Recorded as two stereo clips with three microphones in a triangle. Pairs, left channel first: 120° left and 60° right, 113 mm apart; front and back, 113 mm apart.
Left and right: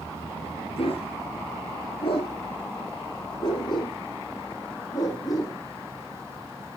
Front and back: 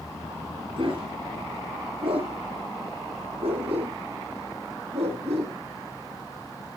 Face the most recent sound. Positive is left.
turn(degrees=175)